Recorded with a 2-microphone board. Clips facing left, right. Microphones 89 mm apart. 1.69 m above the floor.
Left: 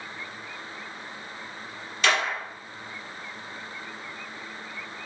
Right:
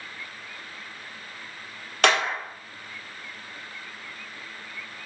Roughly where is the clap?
Right.